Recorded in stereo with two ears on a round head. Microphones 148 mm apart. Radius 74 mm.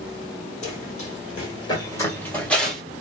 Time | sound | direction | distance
0.6 | running footsteps | 45° left (ahead or behind) | 1.5 m